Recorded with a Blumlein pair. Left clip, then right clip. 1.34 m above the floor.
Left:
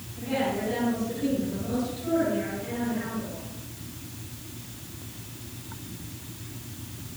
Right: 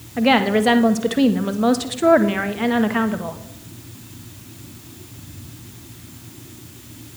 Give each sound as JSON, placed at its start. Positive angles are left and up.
{"t": 0.2, "sound": "a woman speaking", "azimuth_deg": -45, "distance_m": 1.0}